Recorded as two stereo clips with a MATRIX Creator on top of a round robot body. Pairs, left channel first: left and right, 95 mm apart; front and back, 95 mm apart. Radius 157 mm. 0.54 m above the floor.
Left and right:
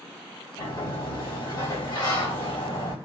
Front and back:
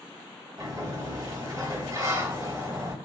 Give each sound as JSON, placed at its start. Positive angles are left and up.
{"t": 0.6, "sound": "a sliding door", "azimuth_deg": 130, "distance_m": 2.5}